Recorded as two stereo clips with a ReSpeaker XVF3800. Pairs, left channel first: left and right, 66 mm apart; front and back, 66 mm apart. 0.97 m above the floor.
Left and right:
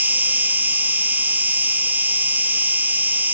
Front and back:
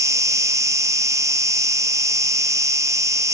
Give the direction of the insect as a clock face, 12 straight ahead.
5 o'clock.